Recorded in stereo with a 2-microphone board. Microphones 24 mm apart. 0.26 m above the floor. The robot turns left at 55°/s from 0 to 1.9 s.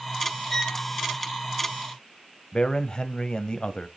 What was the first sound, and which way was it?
A violin, 20° left (ahead or behind).